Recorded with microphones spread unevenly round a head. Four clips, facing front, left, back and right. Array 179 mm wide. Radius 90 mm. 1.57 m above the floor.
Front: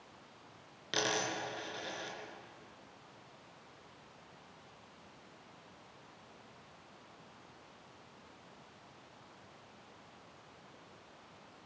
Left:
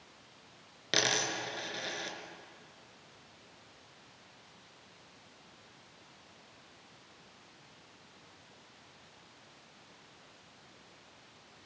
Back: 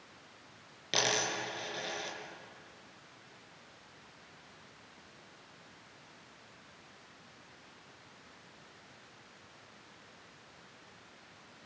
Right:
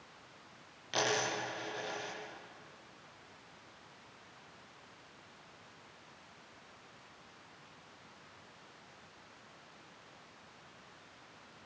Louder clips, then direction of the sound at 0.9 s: Even, back 2 dB; 100° left.